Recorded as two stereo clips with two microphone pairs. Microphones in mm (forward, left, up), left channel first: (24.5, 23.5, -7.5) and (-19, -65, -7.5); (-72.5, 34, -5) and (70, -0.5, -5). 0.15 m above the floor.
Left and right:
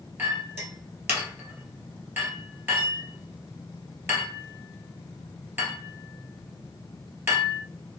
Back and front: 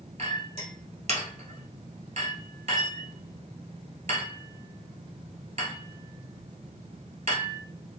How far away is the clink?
About 1.6 m.